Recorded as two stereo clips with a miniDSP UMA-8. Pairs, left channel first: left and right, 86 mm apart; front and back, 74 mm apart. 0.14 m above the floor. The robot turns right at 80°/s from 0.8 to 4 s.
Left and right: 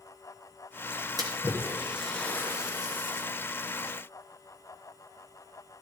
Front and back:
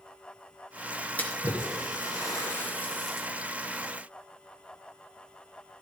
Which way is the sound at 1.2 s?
70° right.